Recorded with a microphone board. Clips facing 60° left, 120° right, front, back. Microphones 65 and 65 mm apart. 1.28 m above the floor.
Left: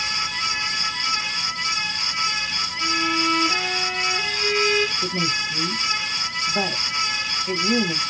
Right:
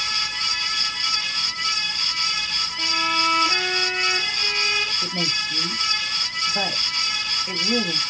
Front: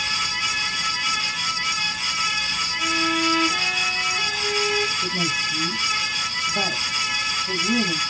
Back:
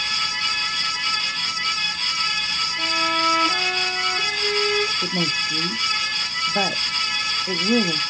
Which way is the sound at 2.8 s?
160° left.